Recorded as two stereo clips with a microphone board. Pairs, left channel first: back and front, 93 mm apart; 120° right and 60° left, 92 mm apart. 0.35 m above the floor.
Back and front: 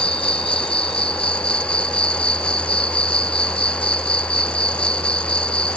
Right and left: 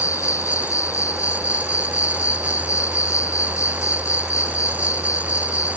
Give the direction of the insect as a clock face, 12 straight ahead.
6 o'clock.